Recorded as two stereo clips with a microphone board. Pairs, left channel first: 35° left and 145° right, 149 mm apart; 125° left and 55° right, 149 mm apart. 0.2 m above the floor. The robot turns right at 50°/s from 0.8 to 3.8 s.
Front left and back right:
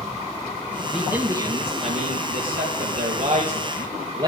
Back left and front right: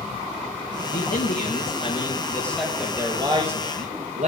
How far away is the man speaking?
About 4 m.